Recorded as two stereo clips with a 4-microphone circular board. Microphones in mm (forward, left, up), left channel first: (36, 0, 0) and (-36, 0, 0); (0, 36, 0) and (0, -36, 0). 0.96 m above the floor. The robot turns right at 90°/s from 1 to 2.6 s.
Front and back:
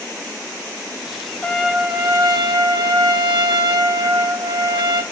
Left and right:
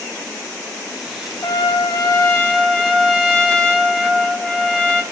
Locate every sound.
1.4 s a trumpet: 70° left, 0.8 m; by 5.0 s 175° left, 0.8 m